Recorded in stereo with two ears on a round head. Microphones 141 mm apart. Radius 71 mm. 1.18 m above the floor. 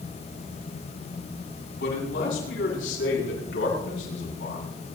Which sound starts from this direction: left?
A man speaking, at 1.8 s.